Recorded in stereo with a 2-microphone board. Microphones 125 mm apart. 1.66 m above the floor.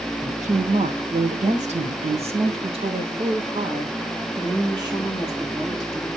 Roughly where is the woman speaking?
Right.